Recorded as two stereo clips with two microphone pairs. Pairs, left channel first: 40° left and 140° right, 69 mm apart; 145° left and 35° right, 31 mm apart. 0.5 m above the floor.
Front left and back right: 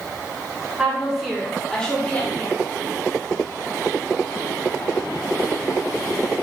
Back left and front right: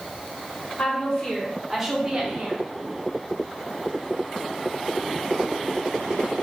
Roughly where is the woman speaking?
Behind left.